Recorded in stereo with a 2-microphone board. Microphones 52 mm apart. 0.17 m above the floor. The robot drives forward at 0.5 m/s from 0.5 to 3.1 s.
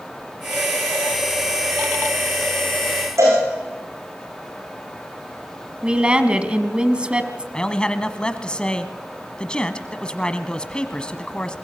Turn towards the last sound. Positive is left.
turn(degrees=20)  # may be behind; listen again after turning